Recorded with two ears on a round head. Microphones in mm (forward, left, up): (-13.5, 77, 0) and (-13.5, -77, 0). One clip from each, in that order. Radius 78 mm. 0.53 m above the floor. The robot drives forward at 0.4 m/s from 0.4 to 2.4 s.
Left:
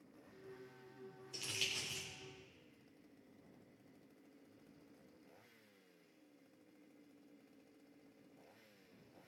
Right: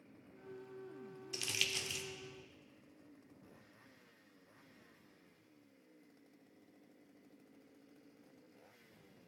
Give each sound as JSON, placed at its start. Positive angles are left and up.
{"t": 1.3, "sound": "crumpling", "side_deg": -50, "distance_m": 1.3}